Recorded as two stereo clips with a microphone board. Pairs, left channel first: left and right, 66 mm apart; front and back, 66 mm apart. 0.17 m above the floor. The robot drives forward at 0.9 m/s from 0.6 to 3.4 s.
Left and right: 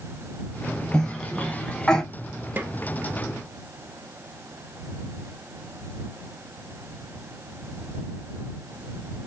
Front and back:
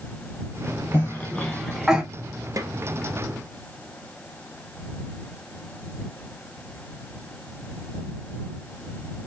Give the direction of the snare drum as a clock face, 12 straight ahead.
5 o'clock.